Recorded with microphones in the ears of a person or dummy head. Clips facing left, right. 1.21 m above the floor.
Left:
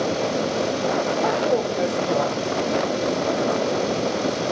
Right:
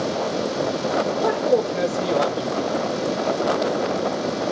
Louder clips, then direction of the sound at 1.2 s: Right 3 dB; 35° right (ahead or behind).